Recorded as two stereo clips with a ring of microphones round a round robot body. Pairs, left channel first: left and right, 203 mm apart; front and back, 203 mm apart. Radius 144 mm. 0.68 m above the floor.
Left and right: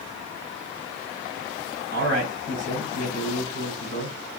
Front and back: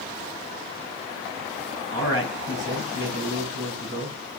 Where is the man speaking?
140° right, 4 m.